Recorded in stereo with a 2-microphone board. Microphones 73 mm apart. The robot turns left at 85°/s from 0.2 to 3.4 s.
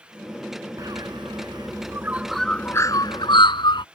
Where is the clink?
No clink in this recording.